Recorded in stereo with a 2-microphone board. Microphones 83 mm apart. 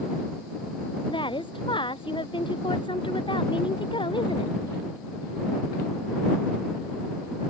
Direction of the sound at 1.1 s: 80° left.